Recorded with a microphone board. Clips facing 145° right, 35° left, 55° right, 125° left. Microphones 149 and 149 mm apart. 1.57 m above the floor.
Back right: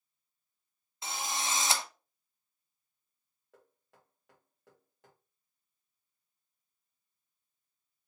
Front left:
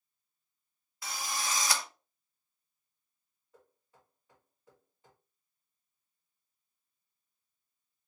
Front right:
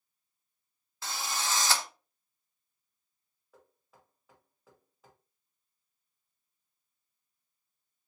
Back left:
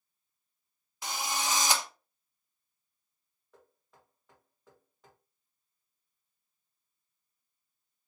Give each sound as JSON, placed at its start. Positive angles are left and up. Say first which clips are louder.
{"t": 1.0, "sound": "a drill", "louder": "back right 1 dB, back left 2 dB", "azimuth_deg": 180, "distance_m": 0.8}
{"t": 3.5, "sound": "knocking", "louder": "even, even", "azimuth_deg": -140, "distance_m": 2.5}